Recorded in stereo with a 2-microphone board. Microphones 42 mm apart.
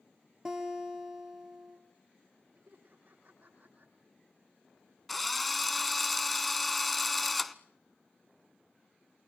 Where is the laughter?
50° right (ahead or behind), 8.5 m.